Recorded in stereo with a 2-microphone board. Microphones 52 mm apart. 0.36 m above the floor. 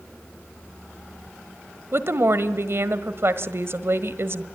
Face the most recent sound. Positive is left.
turn(degrees=-55)  # may be behind; listen again after turning